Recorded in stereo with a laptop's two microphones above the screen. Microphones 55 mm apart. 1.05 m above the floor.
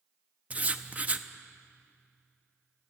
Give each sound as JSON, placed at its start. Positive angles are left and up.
{"t": 0.5, "sound": "writing", "side_deg": -25, "distance_m": 0.6}